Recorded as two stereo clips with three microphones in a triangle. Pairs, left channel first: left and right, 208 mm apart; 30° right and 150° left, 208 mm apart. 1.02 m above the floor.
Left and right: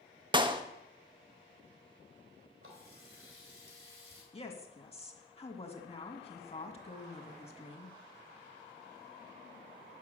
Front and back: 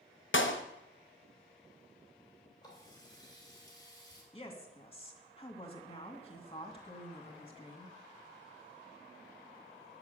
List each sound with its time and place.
0.3 s a clap: 25° right, 0.8 m
2.6 s a running tap: 100° right, 3 m
4.3 s a woman speaking: 30° left, 1.8 m